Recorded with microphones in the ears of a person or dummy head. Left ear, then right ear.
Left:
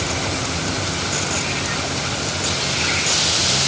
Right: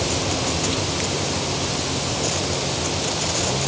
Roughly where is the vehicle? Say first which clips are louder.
Even; right.